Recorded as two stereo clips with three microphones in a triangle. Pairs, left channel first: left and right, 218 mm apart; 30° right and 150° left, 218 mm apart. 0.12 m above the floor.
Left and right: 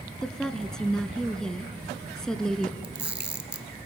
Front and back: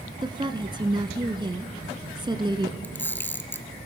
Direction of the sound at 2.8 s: 110° right.